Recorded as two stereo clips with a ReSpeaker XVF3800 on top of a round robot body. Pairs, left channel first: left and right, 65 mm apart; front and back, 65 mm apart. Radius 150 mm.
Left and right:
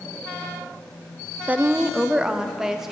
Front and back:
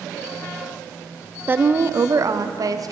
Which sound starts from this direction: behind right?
A woman speaking, at 1.5 s.